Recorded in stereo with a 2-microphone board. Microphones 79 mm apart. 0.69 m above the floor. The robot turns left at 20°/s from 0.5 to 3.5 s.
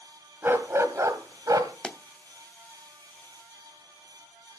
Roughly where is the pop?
Centre.